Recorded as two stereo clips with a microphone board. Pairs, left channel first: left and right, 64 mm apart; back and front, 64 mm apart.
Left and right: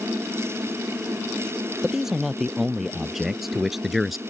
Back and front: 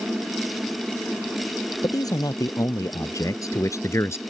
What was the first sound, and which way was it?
A man speaking, 175° right.